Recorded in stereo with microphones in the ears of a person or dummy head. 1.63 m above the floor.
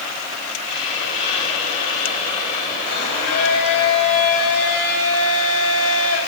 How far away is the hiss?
About 4.5 m.